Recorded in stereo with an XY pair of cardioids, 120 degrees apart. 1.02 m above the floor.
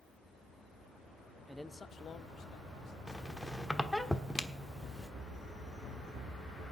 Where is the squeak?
10° left, 1.2 m.